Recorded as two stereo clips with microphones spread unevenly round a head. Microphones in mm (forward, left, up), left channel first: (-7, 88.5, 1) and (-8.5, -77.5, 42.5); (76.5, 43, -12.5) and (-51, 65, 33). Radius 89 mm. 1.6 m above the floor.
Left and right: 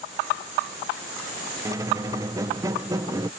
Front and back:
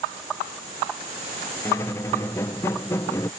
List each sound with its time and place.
1.6 s a squeak: 100° right